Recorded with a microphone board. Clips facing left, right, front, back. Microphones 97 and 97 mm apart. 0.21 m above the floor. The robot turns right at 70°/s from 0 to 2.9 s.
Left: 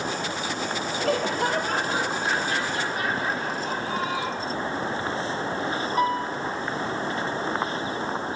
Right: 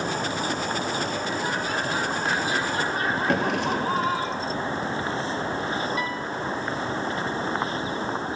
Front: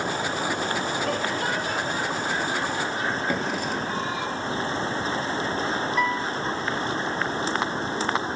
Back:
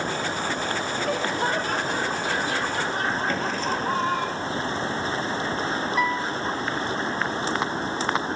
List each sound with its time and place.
1.0 s laughter: 85° left, 6 m; by 4.3 s 140° right, 6 m
3.3 s a drawer: 75° right, 2.5 m
6.0 s a piano: 95° left, 1.4 m